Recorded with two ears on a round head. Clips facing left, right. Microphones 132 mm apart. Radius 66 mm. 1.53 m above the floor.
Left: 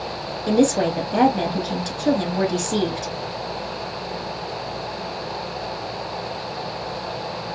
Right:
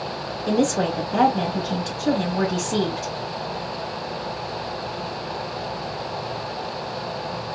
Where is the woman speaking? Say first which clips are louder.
Left 3 dB; 20° left (ahead or behind), 2.5 m.